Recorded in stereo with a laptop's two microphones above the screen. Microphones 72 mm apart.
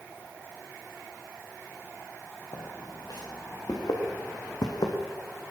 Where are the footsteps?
65° left (ahead or behind), 5.5 m.